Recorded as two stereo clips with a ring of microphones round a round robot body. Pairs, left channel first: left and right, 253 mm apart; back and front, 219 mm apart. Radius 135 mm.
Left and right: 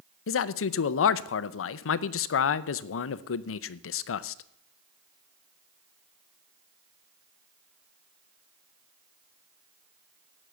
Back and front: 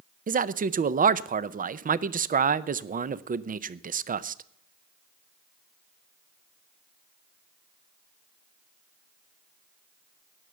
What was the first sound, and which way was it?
A man speaking, 55° left.